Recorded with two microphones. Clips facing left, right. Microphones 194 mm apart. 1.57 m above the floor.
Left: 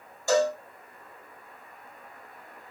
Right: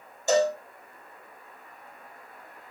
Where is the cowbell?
20° right (ahead or behind), 1.4 m.